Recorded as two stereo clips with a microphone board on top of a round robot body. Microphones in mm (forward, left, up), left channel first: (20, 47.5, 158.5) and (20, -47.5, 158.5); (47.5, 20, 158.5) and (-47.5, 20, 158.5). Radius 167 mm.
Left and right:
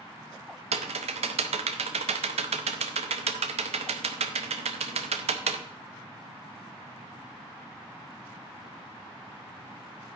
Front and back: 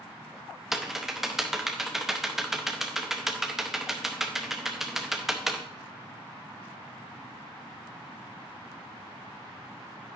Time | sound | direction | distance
0.7 | typing on a keyboard | 95° right | 0.7 m